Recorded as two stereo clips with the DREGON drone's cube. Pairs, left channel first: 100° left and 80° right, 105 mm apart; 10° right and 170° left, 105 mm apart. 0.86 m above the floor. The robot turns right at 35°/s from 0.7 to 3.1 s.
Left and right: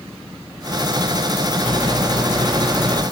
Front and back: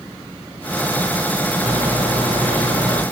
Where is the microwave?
145° left, 1.6 m; by 3.0 s 170° right, 1.6 m.